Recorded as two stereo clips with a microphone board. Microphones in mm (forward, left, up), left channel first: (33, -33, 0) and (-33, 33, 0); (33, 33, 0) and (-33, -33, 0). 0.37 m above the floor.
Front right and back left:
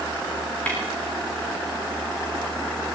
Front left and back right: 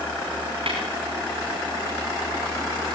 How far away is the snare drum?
About 7 m.